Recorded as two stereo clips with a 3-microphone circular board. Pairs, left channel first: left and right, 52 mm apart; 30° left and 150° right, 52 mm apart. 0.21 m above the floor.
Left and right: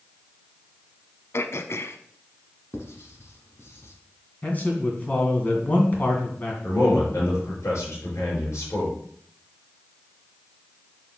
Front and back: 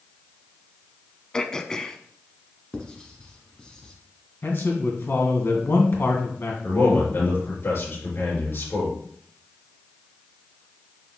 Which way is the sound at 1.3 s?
105° left.